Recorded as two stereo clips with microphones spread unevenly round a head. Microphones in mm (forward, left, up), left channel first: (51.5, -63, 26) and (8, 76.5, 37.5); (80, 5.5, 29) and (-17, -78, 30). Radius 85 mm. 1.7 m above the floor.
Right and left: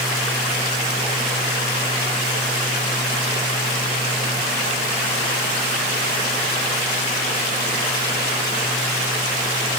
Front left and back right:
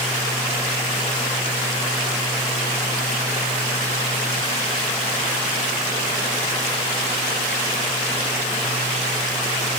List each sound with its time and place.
Only background noise.